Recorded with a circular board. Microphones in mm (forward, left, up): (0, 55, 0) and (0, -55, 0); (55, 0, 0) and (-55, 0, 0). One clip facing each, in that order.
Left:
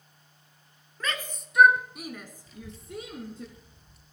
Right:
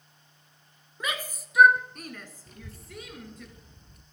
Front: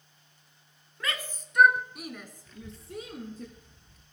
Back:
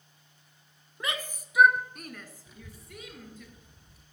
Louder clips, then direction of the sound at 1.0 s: Even, back 1 dB; 145° right.